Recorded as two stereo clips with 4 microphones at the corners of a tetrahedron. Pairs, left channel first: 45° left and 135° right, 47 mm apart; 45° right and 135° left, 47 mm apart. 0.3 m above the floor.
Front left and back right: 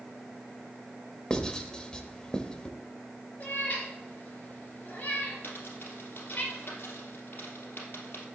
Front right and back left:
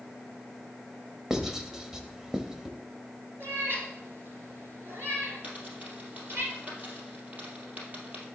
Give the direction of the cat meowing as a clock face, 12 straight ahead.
9 o'clock.